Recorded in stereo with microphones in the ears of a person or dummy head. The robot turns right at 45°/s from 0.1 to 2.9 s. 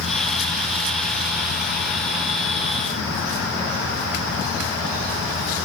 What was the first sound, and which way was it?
Only background noise.